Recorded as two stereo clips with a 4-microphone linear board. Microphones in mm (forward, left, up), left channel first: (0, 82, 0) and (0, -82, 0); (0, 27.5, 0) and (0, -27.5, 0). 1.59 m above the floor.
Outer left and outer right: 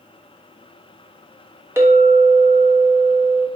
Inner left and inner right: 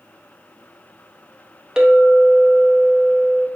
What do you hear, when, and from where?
1.8 s a clink: 15° right (ahead or behind), 0.7 m